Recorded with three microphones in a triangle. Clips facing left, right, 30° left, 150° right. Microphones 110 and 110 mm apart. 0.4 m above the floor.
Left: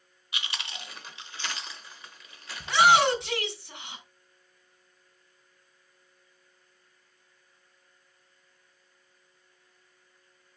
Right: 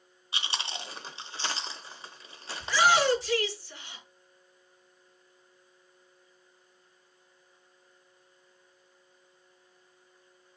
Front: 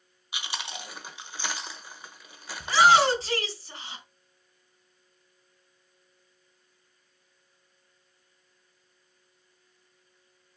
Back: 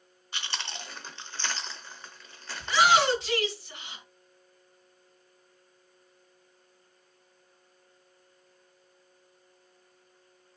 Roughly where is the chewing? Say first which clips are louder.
Right 3 dB, front 1 dB; ahead right.